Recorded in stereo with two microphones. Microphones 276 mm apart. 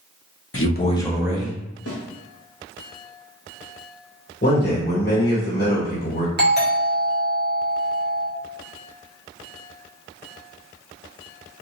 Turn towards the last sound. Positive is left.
turn(degrees=-35)  # may be behind; listen again after turning